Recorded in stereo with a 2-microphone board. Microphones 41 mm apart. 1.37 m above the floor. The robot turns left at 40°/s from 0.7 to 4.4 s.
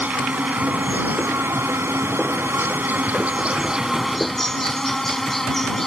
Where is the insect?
40° right; by 5.9 s 170° left.